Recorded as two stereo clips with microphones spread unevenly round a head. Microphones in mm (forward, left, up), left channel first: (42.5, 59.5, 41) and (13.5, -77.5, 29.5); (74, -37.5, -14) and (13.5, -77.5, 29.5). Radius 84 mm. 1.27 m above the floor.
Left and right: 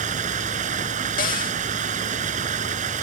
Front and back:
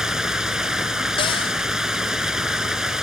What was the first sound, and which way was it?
Running water, 65° right.